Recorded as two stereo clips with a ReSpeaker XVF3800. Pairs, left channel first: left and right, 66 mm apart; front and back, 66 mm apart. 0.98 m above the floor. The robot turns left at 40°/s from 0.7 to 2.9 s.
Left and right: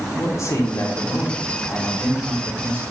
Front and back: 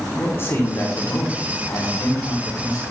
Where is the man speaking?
50° left, 2.5 m; by 2.8 s 35° right, 2.5 m.